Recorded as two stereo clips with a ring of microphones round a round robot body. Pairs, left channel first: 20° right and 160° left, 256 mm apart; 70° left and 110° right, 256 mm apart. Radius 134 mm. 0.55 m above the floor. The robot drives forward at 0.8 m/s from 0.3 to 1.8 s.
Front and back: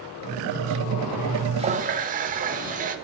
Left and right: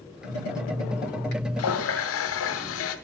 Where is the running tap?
90° left, 1.1 m; by 3.0 s 100° left, 1.1 m.